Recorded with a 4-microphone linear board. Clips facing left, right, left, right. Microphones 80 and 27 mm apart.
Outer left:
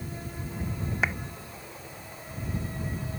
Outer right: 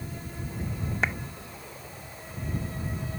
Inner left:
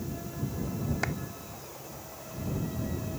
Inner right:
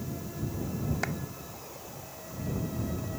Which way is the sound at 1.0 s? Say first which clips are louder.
Even, inner left 1 dB; 5° left (ahead or behind).